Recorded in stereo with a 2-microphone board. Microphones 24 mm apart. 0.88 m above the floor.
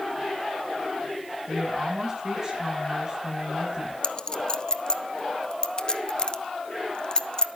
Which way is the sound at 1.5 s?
25° right (ahead or behind).